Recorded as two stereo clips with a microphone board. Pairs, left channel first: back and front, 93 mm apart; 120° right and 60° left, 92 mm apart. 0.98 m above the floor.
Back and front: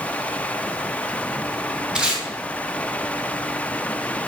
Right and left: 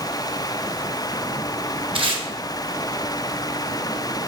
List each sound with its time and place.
1.9 s tape being pulled: 80° left, 1.0 m